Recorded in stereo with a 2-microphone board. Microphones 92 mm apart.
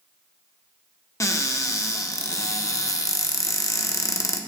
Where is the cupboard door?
35° left (ahead or behind), 0.6 m.